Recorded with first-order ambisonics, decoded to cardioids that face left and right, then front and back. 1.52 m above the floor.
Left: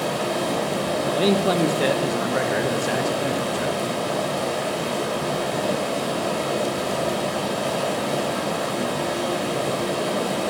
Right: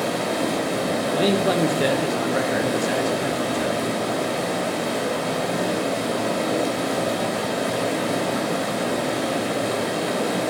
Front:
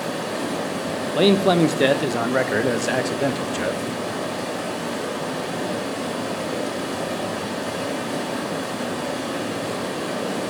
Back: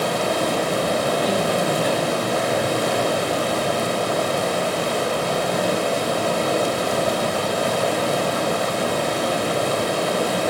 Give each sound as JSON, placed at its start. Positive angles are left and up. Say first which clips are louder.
{"t": 0.0, "sound": "running water", "louder": "even, back 6 dB", "azimuth_deg": 175, "distance_m": 2.5}
{"t": 1.1, "sound": "a man speaking", "louder": "even, front 3 dB", "azimuth_deg": 5, "distance_m": 0.9}